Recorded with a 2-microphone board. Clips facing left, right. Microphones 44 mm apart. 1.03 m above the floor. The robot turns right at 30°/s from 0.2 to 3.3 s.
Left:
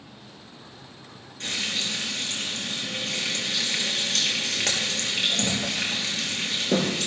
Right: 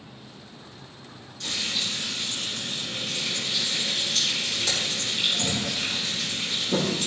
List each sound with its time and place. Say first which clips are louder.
1.4 s frying: left 1 dB; 45° left, 3.5 m; by 7.1 s 100° left, 3.5 m